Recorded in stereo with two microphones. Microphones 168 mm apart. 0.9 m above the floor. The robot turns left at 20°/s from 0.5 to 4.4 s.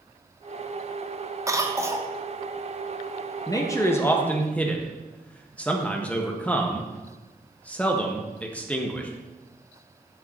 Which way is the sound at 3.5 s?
20° left (ahead or behind).